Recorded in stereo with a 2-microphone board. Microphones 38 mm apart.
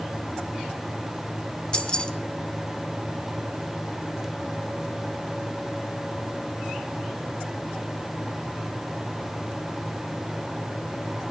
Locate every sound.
1.7 s keys jangling: 30° left (ahead or behind), 0.8 m